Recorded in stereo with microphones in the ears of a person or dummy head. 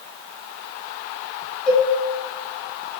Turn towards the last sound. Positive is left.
turn(degrees=5)  # may be behind; listen again after turning